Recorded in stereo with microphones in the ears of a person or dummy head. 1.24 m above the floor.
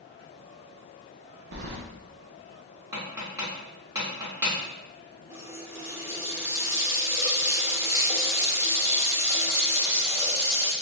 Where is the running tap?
15° right (ahead or behind), 0.7 m.